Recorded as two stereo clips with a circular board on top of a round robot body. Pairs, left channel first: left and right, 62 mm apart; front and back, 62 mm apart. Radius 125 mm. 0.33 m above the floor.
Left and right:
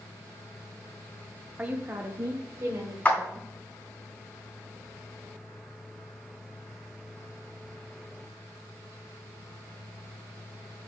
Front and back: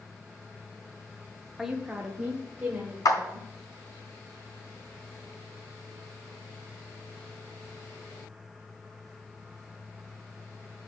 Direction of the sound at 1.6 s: 105° right.